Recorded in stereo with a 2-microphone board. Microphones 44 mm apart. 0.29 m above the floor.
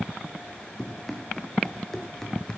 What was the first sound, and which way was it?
Running footsteps, 5° left (ahead or behind).